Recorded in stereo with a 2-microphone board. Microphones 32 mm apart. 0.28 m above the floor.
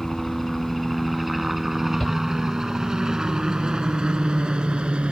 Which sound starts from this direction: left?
A shout, at 2.0 s.